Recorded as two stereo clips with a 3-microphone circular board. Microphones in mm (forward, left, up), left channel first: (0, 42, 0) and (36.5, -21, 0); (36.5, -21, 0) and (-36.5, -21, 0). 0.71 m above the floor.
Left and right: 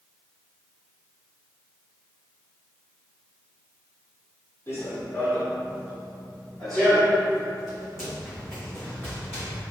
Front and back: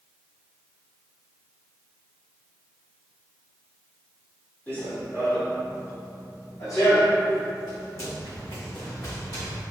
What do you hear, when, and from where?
4.7 s running footsteps: 65° left, 1.5 m; by 9.6 s 20° left, 3.5 m